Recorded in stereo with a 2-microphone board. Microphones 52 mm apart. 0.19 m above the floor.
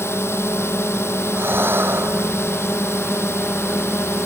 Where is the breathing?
45° right (ahead or behind).